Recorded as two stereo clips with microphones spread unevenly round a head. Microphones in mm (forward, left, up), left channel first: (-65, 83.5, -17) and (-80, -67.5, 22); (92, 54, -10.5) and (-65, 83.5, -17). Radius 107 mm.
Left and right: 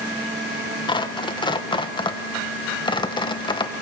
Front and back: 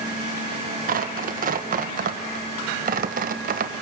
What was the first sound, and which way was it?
Tearing paper, 140° left.